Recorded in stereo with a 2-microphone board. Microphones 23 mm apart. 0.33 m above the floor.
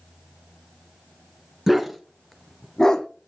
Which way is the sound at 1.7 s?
Centre (ahead or behind).